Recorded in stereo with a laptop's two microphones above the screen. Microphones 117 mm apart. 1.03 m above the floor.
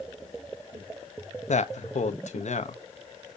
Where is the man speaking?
70° left (ahead or behind), 0.7 m.